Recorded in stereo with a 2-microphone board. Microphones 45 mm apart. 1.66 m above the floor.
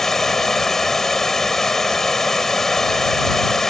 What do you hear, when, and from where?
0.0 s running water: 5° left (ahead or behind)